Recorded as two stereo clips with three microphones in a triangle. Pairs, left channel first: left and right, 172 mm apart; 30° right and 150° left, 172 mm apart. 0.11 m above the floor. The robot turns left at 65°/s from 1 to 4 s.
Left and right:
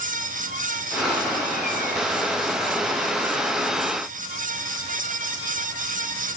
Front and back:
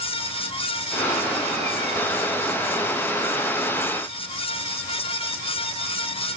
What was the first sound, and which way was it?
Only background noise.